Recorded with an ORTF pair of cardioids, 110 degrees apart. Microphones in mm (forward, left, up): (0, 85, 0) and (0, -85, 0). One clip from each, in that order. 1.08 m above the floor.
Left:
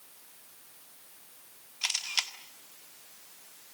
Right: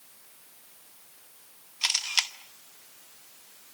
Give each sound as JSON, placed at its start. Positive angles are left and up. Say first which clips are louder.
{"t": 1.8, "sound": "a camera shutter", "louder": "right 4 dB", "azimuth_deg": -25, "distance_m": 1.6}